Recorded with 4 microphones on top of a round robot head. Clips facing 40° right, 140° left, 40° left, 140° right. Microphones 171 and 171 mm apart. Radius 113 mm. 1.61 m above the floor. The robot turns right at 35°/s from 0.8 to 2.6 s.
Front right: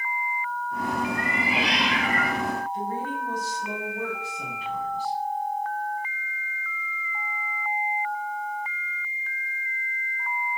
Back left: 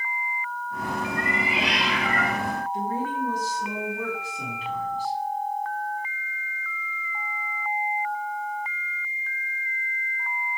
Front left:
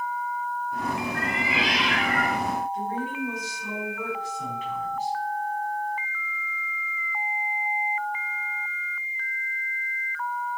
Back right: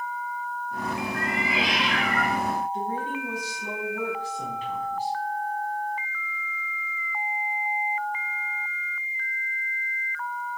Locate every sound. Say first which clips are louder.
1.1 s a cat meowing: even, even; 5° left, 4 m; by 2.4 s 50° left, 4 m
2.7 s a woman speaking: back left 2 dB, even; 160° left, 5 m